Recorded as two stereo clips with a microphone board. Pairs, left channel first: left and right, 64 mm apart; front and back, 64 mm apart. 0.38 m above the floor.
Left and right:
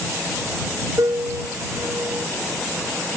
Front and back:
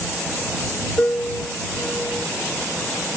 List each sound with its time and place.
1.0 s a piano: 60° right